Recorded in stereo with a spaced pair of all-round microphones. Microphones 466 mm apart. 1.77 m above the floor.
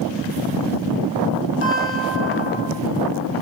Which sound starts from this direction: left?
A guitar, at 1.6 s.